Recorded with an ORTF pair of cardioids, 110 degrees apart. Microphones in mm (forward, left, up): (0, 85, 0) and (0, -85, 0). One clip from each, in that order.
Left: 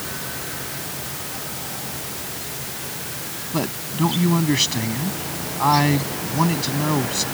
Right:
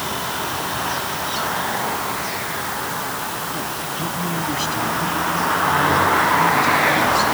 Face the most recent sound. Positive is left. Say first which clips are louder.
# right 1 dB
turn(degrees=50)